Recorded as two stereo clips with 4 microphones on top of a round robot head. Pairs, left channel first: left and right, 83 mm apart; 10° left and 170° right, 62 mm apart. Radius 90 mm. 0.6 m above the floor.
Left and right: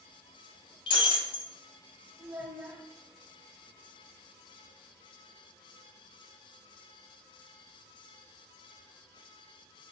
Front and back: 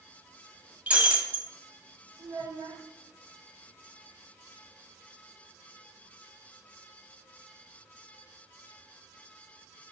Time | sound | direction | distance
0.9 | breaking glass | 120° left | 1.2 m
2.2 | a child speaking | 160° right | 2 m